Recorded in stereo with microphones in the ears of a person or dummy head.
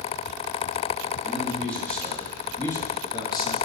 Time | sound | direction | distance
1.2 | a man speaking | centre (ahead or behind) | 1.9 m